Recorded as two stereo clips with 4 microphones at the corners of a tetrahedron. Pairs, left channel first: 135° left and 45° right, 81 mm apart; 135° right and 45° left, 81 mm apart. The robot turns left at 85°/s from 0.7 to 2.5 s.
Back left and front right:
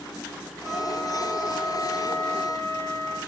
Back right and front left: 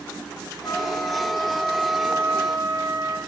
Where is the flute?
130° right, 2 m; by 3.2 s 80° left, 2 m.